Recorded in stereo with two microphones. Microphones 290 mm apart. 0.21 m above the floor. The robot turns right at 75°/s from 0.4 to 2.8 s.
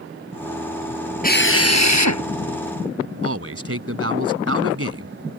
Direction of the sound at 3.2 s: 50° right (ahead or behind).